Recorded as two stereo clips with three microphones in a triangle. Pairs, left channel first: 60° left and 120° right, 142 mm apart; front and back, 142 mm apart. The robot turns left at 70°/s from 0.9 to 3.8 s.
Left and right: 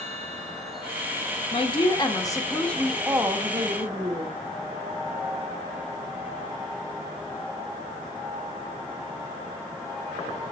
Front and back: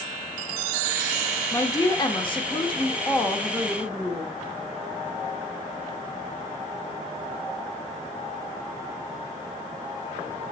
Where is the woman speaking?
65° left, 1.4 m; by 4.4 s 95° right, 1.4 m.